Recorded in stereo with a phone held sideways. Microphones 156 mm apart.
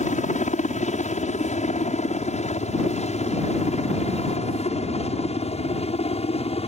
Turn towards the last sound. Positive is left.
turn(degrees=40)  # may be behind; listen again after turning